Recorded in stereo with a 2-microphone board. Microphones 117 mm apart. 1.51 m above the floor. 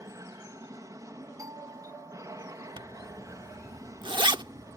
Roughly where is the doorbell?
Right.